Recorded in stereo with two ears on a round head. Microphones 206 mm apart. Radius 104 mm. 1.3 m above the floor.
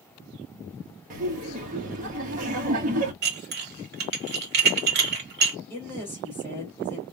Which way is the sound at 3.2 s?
50° right (ahead or behind).